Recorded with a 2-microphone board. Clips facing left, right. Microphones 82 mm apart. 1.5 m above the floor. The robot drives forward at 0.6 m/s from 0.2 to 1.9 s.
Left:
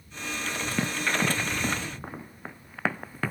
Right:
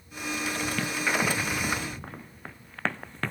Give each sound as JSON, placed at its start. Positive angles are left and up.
{"t": 0.8, "sound": "running footsteps", "side_deg": 15}